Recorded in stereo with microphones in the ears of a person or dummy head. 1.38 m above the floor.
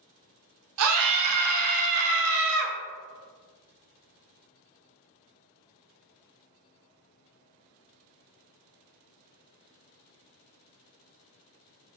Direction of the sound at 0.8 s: 80° right.